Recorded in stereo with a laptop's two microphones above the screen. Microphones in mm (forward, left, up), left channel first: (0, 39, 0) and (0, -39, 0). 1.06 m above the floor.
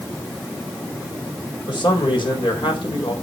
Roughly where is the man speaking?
Left.